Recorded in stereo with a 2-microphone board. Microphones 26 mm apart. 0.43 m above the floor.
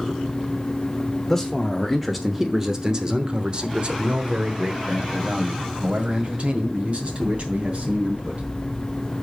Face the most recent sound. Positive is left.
turn(degrees=-50)  # may be behind; listen again after turning